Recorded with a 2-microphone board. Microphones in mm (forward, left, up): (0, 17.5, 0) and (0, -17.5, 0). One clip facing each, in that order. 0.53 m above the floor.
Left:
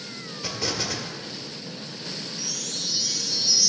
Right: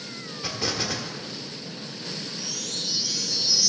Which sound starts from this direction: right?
A chime, at 2.4 s.